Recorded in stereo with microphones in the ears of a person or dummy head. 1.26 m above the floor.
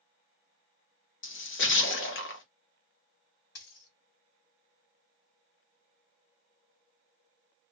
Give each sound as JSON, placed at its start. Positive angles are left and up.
{"t": 1.2, "sound": "a splash", "side_deg": 65, "distance_m": 0.9}
{"t": 3.5, "sound": "a dropped coin", "side_deg": 65, "distance_m": 1.7}